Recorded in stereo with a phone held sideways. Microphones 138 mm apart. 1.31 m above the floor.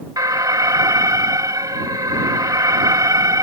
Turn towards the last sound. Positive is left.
turn(degrees=-25)  # may be behind; listen again after turning